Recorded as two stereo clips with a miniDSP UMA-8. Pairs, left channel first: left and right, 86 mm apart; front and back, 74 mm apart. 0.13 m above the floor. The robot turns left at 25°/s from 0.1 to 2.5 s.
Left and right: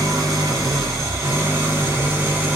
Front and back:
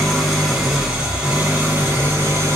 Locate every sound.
0.0 s an engine running: 85° right, 1.6 m; by 2.6 s 145° right, 1.6 m